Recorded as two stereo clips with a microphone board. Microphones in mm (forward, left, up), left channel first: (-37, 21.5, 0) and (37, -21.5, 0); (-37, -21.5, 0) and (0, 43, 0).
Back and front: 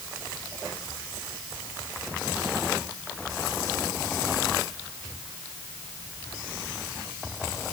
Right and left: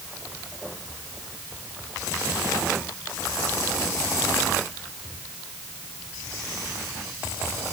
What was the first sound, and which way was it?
Only background noise.